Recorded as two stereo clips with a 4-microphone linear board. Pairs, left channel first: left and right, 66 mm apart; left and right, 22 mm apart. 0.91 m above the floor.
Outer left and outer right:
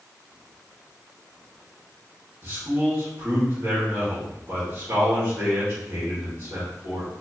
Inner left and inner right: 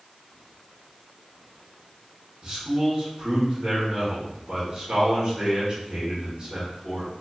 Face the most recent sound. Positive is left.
turn(degrees=-40)  # may be behind; listen again after turning